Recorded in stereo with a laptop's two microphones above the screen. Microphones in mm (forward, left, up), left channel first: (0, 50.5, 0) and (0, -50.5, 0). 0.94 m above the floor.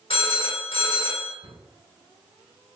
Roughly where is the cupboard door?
Left.